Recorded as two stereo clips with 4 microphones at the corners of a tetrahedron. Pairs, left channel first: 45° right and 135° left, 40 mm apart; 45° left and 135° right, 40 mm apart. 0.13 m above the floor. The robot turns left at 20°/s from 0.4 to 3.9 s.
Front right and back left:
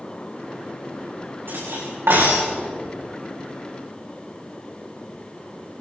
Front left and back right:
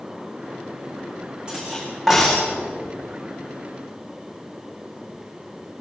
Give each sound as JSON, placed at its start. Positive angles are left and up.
{"t": 1.5, "sound": "cutlery clinking", "azimuth_deg": 160, "distance_m": 6.5}